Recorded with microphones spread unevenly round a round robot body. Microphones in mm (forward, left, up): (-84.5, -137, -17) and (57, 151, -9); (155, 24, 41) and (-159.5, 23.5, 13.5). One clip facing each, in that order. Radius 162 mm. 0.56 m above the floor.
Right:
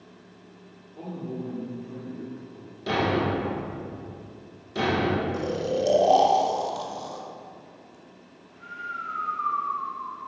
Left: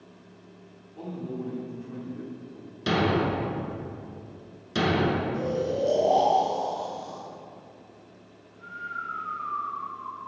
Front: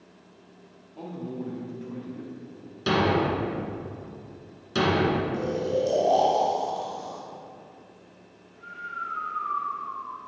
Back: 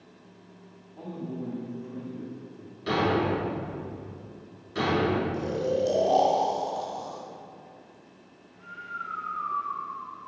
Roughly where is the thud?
Ahead left.